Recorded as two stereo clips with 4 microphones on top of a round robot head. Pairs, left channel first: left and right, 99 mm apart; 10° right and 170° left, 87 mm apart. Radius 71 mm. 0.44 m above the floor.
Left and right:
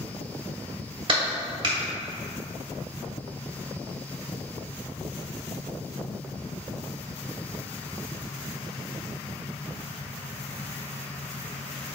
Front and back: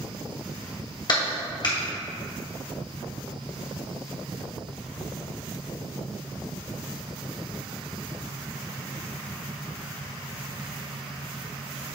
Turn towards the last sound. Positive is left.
turn(degrees=-50)